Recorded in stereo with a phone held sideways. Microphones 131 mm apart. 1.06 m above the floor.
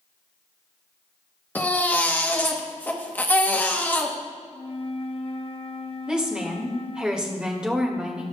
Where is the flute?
45° left (ahead or behind), 0.7 m.